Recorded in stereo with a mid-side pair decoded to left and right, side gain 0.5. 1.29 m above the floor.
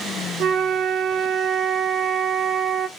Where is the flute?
60° right, 0.8 m.